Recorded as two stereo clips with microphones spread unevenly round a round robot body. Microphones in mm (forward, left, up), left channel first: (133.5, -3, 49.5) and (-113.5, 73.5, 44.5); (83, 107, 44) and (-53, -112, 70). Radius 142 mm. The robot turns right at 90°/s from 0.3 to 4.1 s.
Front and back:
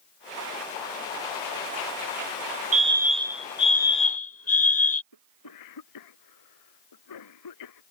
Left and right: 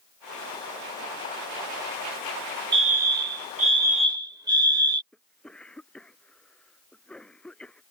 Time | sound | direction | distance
2.7 | a fire alarm | 170° right | ?
5.1 | a cough | 30° right | ?